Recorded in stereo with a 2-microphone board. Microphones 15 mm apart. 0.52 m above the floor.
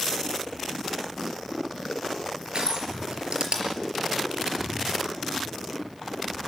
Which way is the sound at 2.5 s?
70° right (ahead or behind).